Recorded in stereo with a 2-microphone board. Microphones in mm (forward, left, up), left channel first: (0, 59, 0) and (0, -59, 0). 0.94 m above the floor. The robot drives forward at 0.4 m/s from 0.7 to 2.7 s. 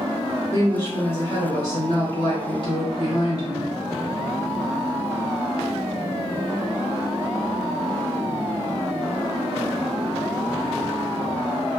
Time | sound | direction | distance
0.5 | a woman speaking | 35° left (ahead or behind) | 1.2 m